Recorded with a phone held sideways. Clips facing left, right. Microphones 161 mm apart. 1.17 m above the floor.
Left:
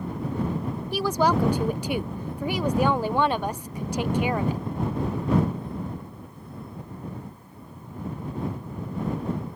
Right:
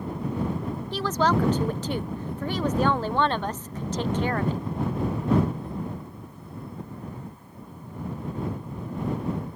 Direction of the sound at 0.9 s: 10° left (ahead or behind).